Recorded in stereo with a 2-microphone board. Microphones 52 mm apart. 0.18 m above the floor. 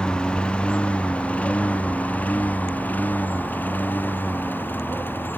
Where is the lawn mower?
15° left (ahead or behind); by 5.4 s 40° left (ahead or behind).